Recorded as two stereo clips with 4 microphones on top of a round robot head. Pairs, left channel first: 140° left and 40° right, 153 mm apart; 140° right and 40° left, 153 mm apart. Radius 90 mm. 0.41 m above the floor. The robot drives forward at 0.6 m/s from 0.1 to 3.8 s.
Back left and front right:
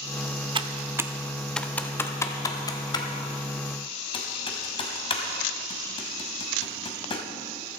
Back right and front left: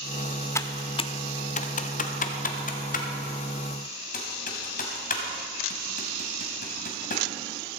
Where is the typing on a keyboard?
75° right, 0.7 m; by 7.2 s 165° right, 2.0 m.